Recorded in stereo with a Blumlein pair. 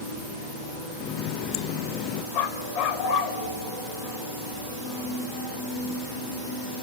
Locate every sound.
1.0 s a running tap: 35° left, 0.6 m
2.3 s a dog barking: 40° left, 1.9 m